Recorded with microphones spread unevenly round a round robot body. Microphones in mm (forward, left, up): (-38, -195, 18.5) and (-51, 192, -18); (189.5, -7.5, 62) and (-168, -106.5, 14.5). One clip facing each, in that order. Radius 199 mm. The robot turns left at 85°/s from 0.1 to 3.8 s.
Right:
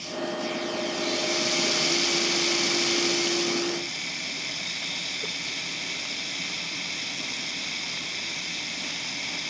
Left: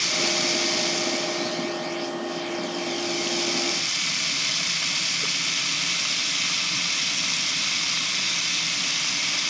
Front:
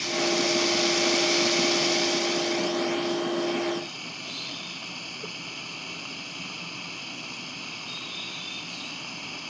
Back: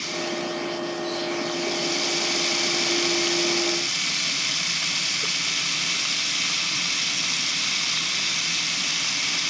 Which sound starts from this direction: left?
Running water, at 0.0 s.